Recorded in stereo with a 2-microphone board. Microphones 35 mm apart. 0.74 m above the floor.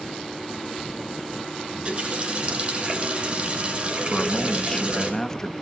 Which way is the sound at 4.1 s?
20° left (ahead or behind).